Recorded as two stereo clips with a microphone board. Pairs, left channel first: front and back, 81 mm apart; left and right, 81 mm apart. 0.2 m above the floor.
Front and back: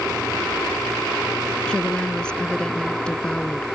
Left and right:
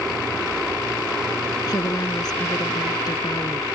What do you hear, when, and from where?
1.7 s a woman speaking: 75° left